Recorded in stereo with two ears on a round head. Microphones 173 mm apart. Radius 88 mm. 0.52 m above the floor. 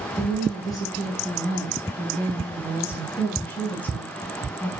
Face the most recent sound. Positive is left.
turn(degrees=5)  # may be behind; listen again after turning